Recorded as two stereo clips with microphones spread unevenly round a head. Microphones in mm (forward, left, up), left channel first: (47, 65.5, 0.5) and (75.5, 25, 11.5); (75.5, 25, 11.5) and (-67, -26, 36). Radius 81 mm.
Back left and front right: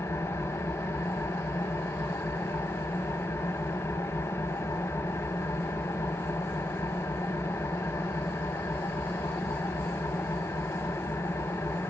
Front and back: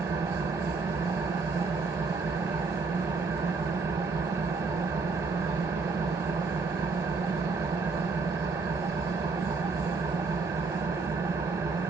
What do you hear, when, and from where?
0.0 s an engine running: 150° left, 0.9 m